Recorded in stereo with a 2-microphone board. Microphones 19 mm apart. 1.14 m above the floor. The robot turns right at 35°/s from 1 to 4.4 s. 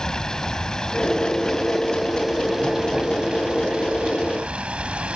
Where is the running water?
135° left, 1.9 m; by 5.2 s 105° right, 1.9 m.